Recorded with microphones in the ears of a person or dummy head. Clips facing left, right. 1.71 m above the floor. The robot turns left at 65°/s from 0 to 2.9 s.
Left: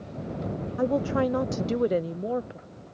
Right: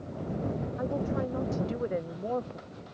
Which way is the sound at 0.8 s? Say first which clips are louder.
Left 8 dB; 120° left.